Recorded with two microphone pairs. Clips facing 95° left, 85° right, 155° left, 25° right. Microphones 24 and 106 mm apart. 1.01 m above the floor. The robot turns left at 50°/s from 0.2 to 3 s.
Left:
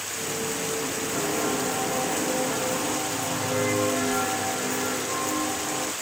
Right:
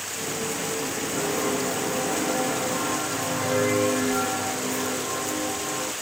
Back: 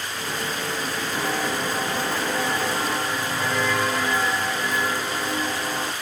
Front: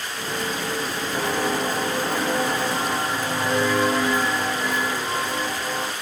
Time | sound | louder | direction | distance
1.1 | footsteps | right 1 dB, front 3 dB | 10° left | 1.9 m